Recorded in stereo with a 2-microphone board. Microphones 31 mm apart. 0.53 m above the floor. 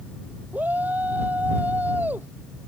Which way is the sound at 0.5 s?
70° right (ahead or behind).